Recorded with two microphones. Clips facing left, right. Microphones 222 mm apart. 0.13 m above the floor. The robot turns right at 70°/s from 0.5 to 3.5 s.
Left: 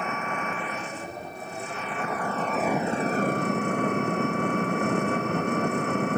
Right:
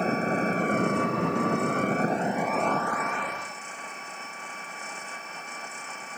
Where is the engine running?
145° right; by 6.2 s 65° left.